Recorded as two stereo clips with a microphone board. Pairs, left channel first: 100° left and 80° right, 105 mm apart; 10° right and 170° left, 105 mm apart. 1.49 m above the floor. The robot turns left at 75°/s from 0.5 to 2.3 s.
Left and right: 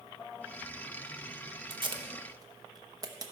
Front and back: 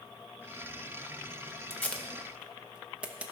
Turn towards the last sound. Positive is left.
turn(degrees=-115)